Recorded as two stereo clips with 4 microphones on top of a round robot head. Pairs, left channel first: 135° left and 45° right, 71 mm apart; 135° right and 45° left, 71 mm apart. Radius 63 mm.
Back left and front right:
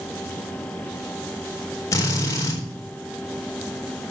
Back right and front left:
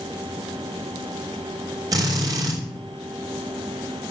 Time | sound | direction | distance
1.9 | a drill | 85° left | 4 m